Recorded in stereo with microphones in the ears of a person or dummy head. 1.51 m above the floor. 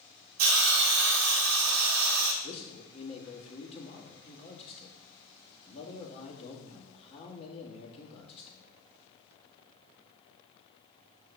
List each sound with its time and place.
0.4 s a hiss: 80° right, 1.1 m
2.4 s a man speaking: 30° left (ahead or behind), 2 m